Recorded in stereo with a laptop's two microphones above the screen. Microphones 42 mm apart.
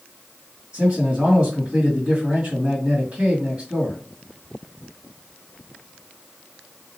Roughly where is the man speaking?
Right.